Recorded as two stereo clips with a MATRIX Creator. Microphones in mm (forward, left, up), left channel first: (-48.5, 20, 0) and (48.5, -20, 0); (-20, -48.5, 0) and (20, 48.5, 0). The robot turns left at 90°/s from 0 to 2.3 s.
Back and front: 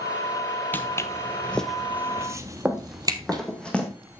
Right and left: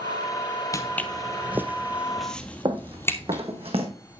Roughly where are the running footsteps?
Ahead left.